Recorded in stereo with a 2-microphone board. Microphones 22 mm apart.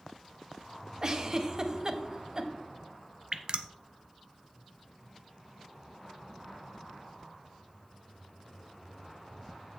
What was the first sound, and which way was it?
A giggle, 30° right (ahead or behind).